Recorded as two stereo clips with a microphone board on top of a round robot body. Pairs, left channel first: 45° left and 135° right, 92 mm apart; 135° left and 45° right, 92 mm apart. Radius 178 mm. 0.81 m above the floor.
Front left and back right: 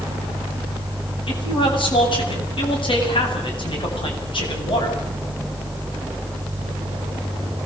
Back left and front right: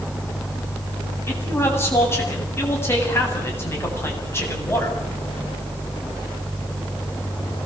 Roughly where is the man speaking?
Left.